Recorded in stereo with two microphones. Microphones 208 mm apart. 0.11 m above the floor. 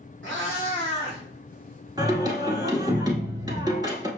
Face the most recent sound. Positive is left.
turn(degrees=-20)  # may be behind; listen again after turning